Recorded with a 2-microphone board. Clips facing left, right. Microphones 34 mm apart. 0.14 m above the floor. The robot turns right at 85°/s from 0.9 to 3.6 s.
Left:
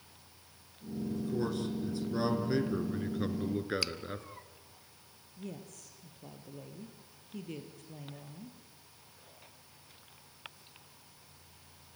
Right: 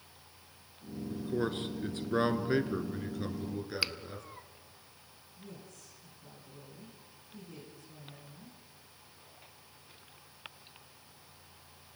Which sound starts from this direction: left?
A woman speaking, at 5.4 s.